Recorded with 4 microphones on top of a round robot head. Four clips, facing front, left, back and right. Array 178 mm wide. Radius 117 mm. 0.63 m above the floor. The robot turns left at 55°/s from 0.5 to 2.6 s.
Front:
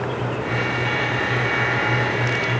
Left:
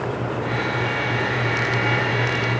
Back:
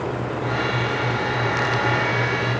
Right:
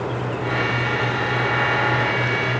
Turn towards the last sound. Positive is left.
No sound to turn to.